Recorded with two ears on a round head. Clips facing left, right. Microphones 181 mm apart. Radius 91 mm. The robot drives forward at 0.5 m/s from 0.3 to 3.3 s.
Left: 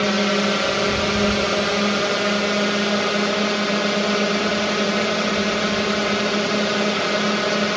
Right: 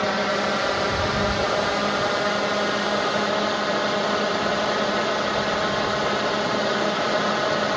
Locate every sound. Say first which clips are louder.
0.0 s a drone: left 4 dB; 40° left (ahead or behind); by 7.8 s 35° left (ahead or behind)